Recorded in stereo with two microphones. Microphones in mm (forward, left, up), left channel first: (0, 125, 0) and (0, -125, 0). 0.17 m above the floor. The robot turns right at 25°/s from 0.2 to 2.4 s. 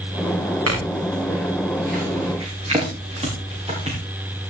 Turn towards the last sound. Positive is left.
turn(degrees=-25)  # may be behind; listen again after turning